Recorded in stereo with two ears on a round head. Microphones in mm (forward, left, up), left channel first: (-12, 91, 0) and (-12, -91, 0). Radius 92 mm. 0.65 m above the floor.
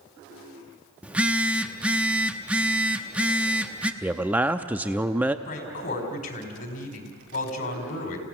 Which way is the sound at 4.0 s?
10° right (ahead or behind).